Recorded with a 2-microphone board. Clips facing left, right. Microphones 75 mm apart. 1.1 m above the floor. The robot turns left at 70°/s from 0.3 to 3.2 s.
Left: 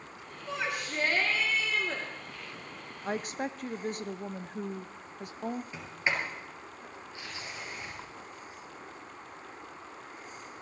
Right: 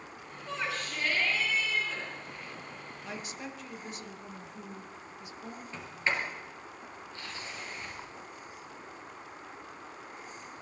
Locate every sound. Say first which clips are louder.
0.5 s a shout: left 1 dB; straight behind, 3 m; by 2.0 s 70° left, 3 m
3.0 s a woman speaking: left 9 dB; 40° left (ahead or behind), 0.7 m; by 5.6 s 50° left (ahead or behind), 0.7 m
5.7 s a sliding door: right 4 dB; 15° left (ahead or behind), 4 m